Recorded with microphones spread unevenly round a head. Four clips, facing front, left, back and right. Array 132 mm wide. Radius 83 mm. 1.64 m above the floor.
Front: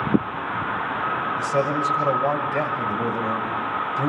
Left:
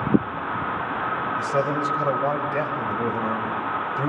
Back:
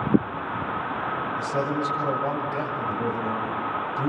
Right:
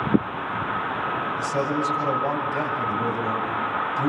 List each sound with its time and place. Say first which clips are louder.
1.4 s a man speaking: left 2 dB, front 4 dB; 40° left, 6.5 m